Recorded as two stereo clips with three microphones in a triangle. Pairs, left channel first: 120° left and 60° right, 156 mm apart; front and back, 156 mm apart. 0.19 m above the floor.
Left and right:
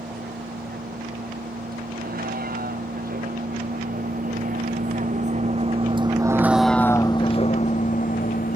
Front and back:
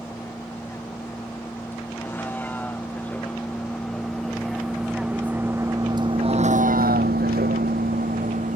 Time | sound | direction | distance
0.0 | a vehicle | 75° right | ?